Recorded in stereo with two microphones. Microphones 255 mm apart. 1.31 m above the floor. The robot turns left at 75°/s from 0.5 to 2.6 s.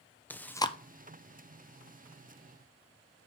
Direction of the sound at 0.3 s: 5° left (ahead or behind).